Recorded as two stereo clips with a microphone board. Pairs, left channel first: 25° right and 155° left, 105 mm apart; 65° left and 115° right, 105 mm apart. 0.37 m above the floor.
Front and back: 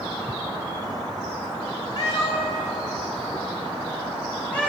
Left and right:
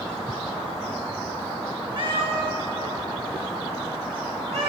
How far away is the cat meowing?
About 2 m.